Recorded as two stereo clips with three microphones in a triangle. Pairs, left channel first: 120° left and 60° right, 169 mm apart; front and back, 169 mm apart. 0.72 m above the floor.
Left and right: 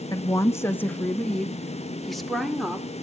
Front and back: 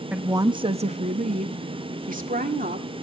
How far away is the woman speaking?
About 0.6 m.